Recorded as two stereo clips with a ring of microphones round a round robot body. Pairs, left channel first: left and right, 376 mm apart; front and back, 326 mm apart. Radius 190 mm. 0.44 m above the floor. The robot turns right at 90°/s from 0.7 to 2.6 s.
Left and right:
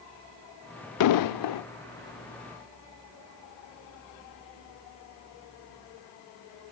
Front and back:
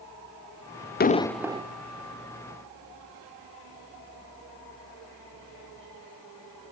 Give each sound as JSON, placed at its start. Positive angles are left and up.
{"t": 1.0, "sound": "an explosion", "azimuth_deg": 55, "distance_m": 0.6}